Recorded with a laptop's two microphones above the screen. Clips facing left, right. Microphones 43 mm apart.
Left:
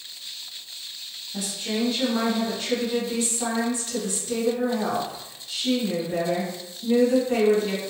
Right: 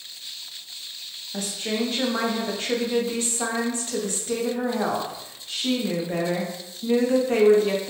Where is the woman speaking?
45° right (ahead or behind), 0.8 m.